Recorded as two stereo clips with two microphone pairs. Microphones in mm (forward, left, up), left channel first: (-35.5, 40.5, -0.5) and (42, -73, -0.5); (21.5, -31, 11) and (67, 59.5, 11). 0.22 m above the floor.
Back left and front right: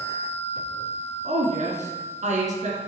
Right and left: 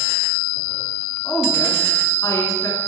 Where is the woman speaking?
60° right, 2 m.